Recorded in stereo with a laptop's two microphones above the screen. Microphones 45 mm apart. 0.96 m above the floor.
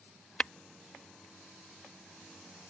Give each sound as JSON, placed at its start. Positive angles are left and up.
{"t": 0.4, "sound": "tapping", "side_deg": 25}